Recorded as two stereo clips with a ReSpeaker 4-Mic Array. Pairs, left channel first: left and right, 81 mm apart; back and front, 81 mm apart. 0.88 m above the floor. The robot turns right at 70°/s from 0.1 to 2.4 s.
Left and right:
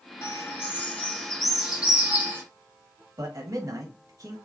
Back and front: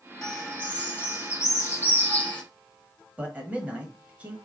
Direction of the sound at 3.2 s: 65° right.